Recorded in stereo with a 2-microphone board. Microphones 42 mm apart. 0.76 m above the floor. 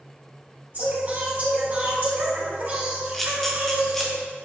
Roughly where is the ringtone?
No ringtone in this recording.